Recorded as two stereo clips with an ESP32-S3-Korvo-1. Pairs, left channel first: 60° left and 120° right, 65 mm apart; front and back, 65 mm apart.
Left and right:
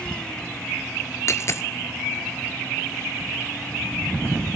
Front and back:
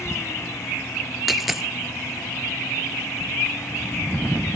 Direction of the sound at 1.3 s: 95° left.